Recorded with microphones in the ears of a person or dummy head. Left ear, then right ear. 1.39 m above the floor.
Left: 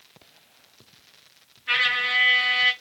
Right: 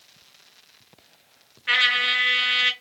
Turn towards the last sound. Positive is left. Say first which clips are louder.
# right 2 dB
turn(degrees=-25)  # may be behind; listen again after turning